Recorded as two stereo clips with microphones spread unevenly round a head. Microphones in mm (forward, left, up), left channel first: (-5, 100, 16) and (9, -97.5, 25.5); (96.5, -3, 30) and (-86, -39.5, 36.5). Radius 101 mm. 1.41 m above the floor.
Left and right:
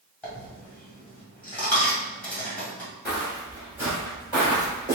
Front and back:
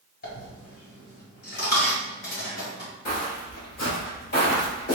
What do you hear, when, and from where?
0.2 s a dropped coin: 10° left, 1.5 m
3.0 s footsteps: 10° right, 1.6 m; by 5.0 s 15° right, 2.5 m